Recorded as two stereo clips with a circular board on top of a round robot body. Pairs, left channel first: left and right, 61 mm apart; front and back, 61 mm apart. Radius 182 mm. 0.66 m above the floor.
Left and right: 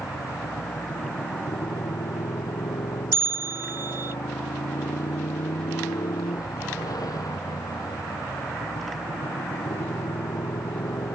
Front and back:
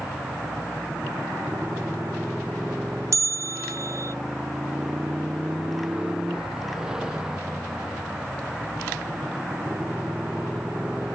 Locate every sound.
0.0 s a motorcycle: 100° left
3.1 s a bell: 140° right